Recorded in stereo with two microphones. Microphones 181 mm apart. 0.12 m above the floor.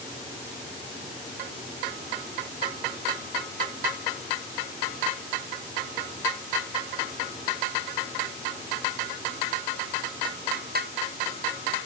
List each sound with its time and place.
Only background noise.